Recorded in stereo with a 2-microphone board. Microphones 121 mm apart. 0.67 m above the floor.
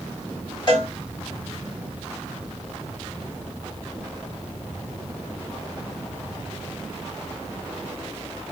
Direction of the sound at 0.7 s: 40° left (ahead or behind).